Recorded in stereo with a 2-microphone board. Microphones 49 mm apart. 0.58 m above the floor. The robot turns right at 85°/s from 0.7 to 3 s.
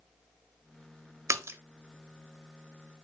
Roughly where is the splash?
Right.